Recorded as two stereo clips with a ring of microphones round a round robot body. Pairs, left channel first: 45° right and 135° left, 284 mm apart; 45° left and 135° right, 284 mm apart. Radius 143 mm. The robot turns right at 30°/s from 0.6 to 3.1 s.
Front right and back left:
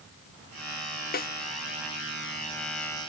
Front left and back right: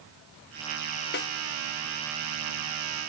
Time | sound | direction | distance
1.1 | a snare drum | straight ahead | 0.8 m